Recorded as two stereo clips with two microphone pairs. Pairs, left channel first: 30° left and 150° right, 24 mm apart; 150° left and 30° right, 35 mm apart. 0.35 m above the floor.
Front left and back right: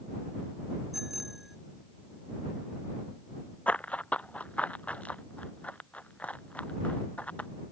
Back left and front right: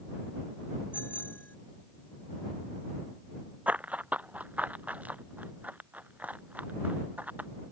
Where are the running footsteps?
15° left; by 7.5 s 10° left.